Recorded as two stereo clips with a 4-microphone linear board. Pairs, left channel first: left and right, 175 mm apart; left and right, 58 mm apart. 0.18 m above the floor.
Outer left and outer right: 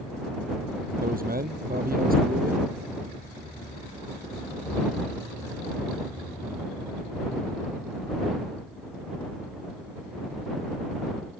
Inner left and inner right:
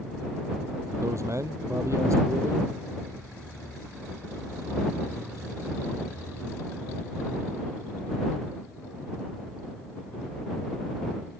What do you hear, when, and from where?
1.0 s a man speaking: 55° right (ahead or behind)